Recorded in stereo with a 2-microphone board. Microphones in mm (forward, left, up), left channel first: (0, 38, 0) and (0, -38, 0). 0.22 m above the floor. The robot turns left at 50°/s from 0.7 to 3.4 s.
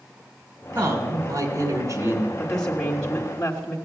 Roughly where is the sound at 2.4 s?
Centre.